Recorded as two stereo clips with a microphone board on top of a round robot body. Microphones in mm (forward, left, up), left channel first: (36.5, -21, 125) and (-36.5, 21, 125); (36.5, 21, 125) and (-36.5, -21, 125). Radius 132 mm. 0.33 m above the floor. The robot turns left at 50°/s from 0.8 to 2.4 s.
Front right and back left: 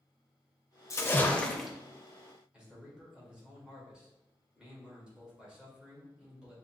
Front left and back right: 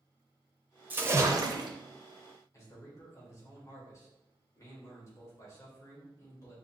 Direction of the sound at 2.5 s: 75° left.